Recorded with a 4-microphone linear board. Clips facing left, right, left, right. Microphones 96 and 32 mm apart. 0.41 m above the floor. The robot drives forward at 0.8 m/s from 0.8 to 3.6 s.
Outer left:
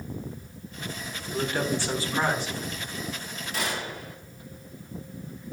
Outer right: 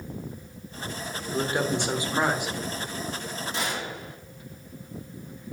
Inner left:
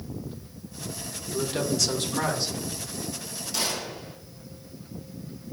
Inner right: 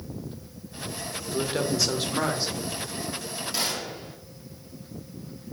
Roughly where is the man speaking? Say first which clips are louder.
Outer right 1 dB, inner right 1 dB; right.